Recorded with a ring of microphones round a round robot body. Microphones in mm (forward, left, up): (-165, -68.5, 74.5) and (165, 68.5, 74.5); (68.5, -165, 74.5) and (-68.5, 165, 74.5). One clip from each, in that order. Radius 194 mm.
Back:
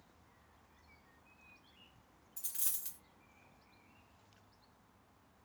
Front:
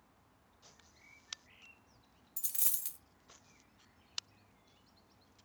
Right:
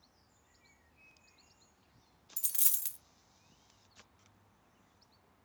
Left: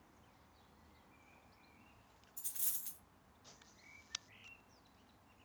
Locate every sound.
2.4 s a dropped coin: 50° right, 0.6 m